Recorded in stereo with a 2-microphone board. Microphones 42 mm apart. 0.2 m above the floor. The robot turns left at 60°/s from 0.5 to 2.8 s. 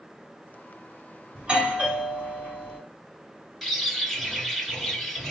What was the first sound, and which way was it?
A doorbell, 20° right (ahead or behind).